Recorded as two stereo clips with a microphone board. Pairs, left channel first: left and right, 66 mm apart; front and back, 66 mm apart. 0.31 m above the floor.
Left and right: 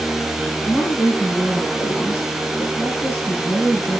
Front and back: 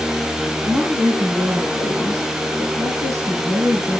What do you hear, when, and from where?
0.6 s a woman speaking: 140° left, 7.5 m